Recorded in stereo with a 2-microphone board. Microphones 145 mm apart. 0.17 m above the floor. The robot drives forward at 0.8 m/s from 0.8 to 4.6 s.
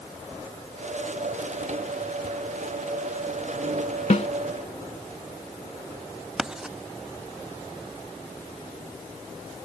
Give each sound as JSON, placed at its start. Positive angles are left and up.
{"t": 4.1, "sound": "a snare drum", "side_deg": 55}
{"t": 6.4, "sound": "writing", "side_deg": -5}